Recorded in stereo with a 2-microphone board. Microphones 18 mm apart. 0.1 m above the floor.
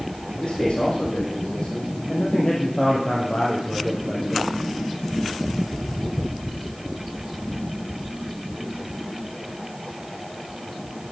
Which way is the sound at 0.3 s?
75° left (ahead or behind).